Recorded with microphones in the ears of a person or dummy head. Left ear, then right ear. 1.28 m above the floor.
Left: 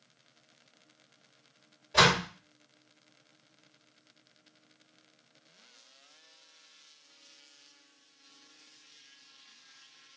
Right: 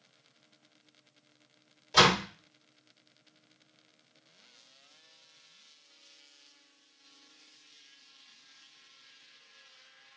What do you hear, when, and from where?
1.9 s a door slam: 85° right, 2 m